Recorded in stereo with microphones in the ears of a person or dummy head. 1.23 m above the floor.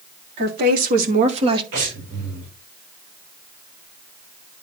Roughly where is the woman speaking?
Right.